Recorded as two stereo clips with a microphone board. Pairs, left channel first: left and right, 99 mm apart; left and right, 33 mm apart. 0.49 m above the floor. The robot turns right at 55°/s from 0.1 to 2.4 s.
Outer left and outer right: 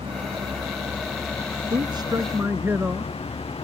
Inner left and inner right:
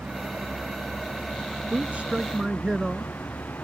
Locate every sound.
0.0 s a vehicle: 75° right (ahead or behind); by 3.6 s 80° left
1.7 s a man speaking: 60° right; by 3.1 s 20° right